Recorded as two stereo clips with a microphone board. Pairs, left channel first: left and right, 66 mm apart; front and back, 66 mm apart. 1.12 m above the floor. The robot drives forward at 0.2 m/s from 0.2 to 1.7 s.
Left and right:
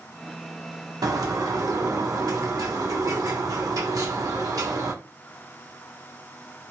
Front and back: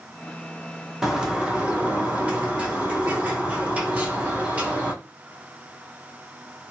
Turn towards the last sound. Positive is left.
turn(degrees=-110)